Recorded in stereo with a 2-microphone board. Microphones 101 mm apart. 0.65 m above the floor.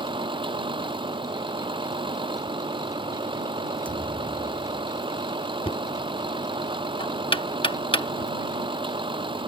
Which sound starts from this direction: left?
Knocking, at 5.7 s.